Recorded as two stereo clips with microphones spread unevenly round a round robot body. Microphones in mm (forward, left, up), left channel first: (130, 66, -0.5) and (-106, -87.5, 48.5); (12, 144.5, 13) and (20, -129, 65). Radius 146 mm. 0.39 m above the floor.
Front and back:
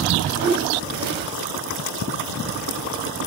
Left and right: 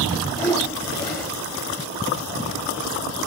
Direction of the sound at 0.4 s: 160° left.